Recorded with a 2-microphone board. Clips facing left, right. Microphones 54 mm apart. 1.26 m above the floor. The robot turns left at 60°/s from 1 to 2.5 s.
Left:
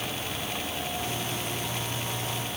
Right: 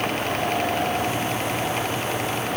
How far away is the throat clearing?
I don't hear throat clearing.